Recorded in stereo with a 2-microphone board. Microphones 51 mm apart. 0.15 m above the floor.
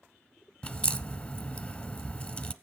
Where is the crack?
20° left (ahead or behind), 0.9 m.